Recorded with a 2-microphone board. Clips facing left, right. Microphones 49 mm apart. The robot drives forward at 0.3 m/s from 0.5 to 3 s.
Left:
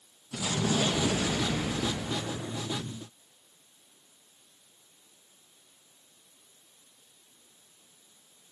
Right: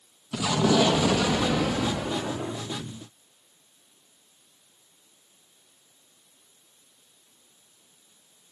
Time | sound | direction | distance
0.3 | an explosion | 75° right (ahead or behind) | 1.4 m